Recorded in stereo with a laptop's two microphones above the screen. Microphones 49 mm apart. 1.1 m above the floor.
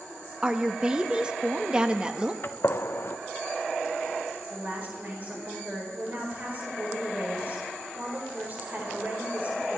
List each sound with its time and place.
0.4 s a woman speaking: 20° right (ahead or behind), 1.4 m
2.4 s a gunshot: 60° left (ahead or behind), 0.7 m
4.5 s a woman speaking: 35° right (ahead or behind), 4.5 m